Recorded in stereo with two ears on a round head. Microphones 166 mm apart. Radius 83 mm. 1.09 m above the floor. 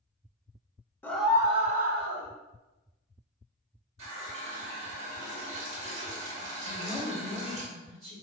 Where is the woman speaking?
Centre (ahead or behind), 1.9 m.